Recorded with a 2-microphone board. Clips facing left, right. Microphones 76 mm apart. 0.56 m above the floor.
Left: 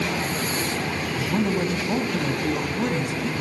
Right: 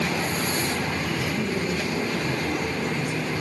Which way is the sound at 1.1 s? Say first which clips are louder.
Left 3 dB; 75° left (ahead or behind).